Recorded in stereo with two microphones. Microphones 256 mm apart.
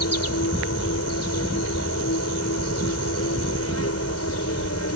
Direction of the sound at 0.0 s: 75° left (ahead or behind).